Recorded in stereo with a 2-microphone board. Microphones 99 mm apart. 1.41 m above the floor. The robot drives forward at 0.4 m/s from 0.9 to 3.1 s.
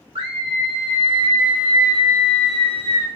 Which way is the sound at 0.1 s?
70° right (ahead or behind).